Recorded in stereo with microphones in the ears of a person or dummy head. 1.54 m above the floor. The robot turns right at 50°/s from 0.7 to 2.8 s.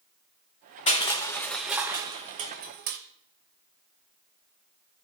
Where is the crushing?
35° left (ahead or behind), 1.1 m; by 3.0 s 50° right (ahead or behind), 1.1 m.